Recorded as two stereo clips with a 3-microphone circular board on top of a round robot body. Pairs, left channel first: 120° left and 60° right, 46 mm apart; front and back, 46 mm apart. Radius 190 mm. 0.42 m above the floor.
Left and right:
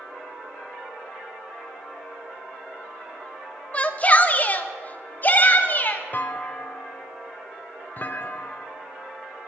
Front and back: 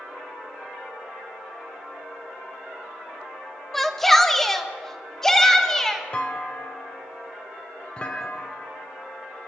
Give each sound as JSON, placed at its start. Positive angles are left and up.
{"t": 3.7, "sound": "a shout", "azimuth_deg": 80, "distance_m": 1.4}
{"t": 6.1, "sound": "a clunk", "azimuth_deg": 70, "distance_m": 0.6}